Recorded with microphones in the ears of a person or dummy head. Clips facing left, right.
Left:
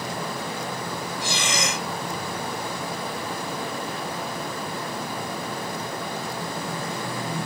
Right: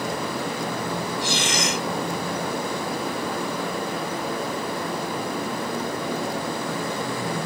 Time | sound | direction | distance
1.2 | breathing | 85° left | ?